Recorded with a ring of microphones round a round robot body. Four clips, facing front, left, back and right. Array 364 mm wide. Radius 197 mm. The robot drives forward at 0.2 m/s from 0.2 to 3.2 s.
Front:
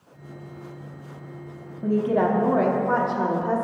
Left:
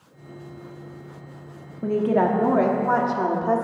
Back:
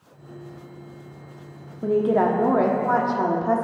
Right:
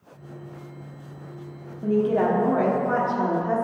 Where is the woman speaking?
135° left, 1.3 m; by 3.6 s 145° left, 1.4 m.